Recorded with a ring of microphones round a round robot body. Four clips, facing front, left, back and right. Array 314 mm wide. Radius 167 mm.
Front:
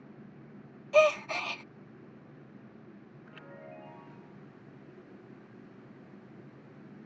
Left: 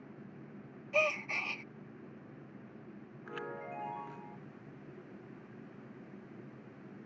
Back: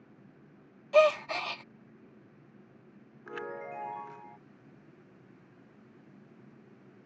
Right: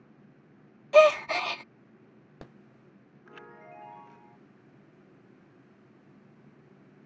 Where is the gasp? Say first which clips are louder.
Right 15 dB, back 1 dB; 90° right.